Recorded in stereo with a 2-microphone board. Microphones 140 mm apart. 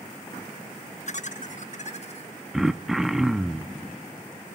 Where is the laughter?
55° left (ahead or behind), 0.8 m; by 2.3 s 50° left (ahead or behind), 1.9 m.